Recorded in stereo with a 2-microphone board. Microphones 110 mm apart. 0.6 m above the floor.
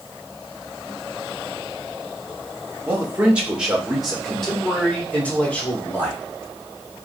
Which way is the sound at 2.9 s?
20° right (ahead or behind).